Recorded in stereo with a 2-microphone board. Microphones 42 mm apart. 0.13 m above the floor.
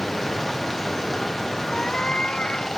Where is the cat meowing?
20° left (ahead or behind).